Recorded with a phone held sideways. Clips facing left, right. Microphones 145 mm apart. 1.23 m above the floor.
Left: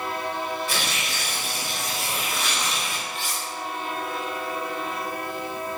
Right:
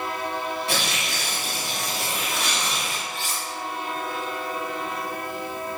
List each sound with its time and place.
0.7 s tearing paper: 65° right (ahead or behind), 1.0 m
3.1 s cutlery clinking: 70° right (ahead or behind), 1.6 m